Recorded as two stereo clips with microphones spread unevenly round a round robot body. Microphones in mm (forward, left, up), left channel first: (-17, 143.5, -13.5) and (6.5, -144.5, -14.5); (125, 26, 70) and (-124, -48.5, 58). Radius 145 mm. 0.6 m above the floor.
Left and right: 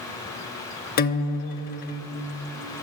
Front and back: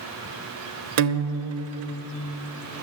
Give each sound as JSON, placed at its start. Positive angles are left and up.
{"t": 1.0, "sound": "a guitar", "azimuth_deg": 155, "distance_m": 0.6}